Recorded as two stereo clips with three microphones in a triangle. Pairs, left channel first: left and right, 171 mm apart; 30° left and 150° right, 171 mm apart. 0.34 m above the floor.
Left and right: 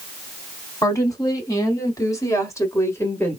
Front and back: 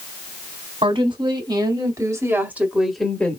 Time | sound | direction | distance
0.8 | a woman speaking | 160° left | 2.5 m